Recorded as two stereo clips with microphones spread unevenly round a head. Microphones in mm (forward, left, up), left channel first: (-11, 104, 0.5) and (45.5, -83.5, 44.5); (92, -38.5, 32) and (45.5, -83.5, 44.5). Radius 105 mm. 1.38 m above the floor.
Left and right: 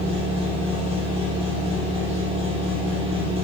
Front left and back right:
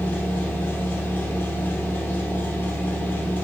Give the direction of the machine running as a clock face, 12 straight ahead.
1 o'clock.